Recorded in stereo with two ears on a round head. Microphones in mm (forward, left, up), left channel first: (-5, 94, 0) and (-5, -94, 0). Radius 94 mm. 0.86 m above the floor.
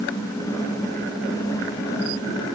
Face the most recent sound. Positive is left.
No sound to turn to.